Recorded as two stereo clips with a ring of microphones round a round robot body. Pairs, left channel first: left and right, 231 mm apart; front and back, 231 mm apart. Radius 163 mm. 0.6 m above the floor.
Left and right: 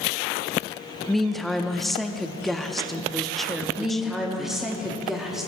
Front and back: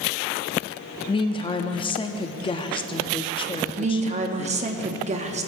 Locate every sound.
1.1 s a woman speaking: straight ahead, 0.5 m
3.8 s a woman speaking: 175° right, 0.8 m